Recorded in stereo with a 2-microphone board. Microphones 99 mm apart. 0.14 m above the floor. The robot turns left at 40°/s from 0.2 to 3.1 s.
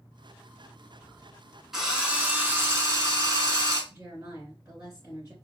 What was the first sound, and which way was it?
A drill, 10° right.